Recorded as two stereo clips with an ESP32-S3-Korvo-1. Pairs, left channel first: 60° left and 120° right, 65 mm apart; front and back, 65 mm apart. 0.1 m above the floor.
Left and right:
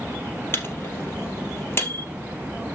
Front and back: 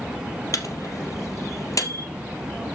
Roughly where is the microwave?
Ahead.